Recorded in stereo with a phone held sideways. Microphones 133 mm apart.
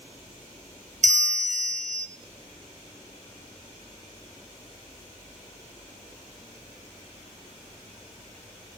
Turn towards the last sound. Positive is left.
turn(degrees=-60)  # may be behind; listen again after turning